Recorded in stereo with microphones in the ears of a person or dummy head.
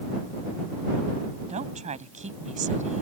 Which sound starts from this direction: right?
A woman speaking, at 1.5 s.